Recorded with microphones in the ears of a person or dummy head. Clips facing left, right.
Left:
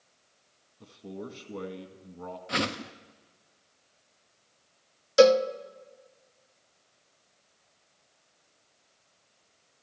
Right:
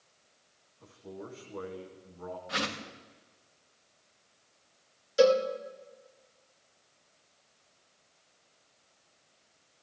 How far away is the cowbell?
About 0.9 m.